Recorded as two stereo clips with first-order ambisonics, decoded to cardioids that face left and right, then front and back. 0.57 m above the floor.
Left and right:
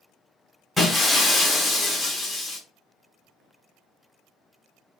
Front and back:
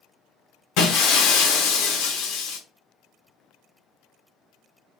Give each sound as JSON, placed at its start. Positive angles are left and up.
{"t": 0.8, "sound": "breaking glass", "azimuth_deg": 5, "distance_m": 1.0}